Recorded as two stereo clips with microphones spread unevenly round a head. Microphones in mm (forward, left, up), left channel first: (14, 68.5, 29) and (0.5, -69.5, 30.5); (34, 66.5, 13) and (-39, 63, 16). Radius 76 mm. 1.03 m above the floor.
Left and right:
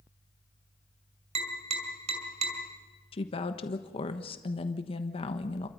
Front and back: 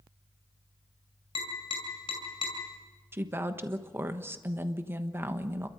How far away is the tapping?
About 5 m.